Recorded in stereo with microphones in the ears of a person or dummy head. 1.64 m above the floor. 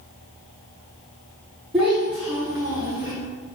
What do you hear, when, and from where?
1.7 s a child speaking: 10° right (ahead or behind), 0.7 m; by 3.1 s 15° right (ahead or behind), 1.2 m